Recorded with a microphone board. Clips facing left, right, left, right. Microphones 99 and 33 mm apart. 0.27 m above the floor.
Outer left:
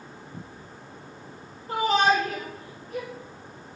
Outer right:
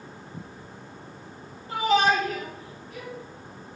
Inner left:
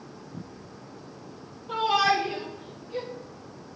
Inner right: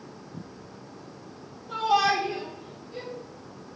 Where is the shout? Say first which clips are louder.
Even, even; 45° left (ahead or behind), 5 m; by 3.1 s 60° left (ahead or behind), 6 m.